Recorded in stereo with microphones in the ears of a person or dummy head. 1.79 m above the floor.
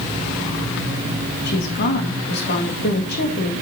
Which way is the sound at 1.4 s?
50° left (ahead or behind).